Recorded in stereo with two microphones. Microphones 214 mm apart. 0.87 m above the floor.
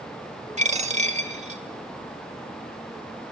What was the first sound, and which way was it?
A dropped coin, 35° right (ahead or behind).